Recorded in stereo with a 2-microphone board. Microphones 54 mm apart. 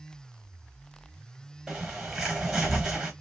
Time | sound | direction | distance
1.7 | a bird | 10° right (ahead or behind) | 0.9 m